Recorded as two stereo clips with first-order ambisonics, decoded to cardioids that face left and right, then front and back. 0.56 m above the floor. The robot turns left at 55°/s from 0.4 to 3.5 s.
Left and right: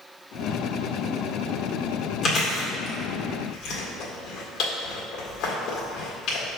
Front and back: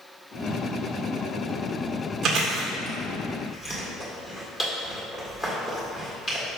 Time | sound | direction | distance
2.2 | chewing | 135° left | 1.8 m